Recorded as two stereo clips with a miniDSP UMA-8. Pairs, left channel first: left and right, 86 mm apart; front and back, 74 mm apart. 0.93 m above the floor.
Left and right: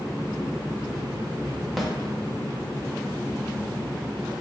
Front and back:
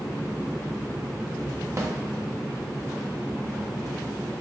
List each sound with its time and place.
1.8 s a snare drum: straight behind, 0.5 m